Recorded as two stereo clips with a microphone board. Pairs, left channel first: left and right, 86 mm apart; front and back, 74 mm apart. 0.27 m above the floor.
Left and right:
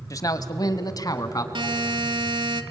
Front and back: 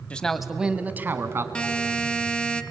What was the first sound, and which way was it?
A man speaking, 65° left.